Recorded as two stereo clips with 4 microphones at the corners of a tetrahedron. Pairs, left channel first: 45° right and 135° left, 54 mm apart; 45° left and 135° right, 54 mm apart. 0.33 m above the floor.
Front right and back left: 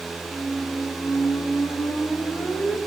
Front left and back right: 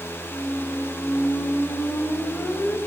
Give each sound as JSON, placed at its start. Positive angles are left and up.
{"t": 0.3, "sound": "a squeak", "azimuth_deg": 5, "distance_m": 7.0}